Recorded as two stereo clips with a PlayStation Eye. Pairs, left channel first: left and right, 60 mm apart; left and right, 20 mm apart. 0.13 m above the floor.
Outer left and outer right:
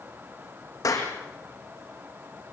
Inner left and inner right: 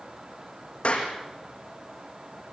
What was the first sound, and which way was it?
A clap, 65° left (ahead or behind).